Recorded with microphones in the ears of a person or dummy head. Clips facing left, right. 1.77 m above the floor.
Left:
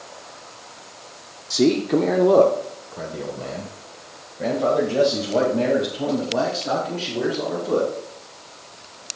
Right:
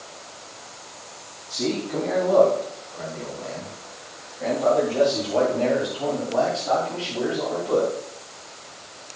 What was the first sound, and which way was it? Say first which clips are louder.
A man speaking: left 8 dB; 70° left (ahead or behind).